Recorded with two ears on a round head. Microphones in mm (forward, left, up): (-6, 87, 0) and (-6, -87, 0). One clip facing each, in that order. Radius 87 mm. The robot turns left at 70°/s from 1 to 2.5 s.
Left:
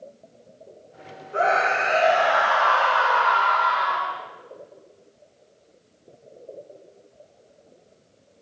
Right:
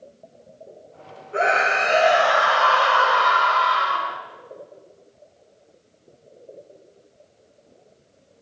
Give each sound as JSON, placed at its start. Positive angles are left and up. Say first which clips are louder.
{"t": 1.3, "sound": "a scream", "louder": "even", "azimuth_deg": -25, "distance_m": 2.0}